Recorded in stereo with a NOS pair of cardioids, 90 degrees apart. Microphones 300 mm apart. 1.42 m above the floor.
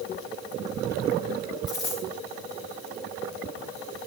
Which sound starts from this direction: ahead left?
A dropped coin, at 1.7 s.